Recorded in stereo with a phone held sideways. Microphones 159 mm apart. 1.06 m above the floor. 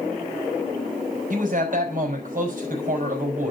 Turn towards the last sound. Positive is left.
turn(degrees=-60)  # may be behind; listen again after turning